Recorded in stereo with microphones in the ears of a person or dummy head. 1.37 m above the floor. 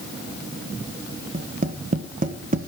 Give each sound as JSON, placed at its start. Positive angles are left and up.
{"t": 1.3, "sound": "tapping", "side_deg": -40, "distance_m": 1.3}